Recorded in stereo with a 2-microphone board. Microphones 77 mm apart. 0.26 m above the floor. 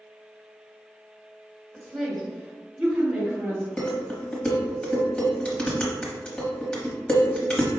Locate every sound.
1.7 s a woman speaking: 10° left (ahead or behind), 1.7 m; by 3.7 s 25° right (ahead or behind), 1.8 m
3.8 s dishes clattering: 15° left (ahead or behind), 1.0 m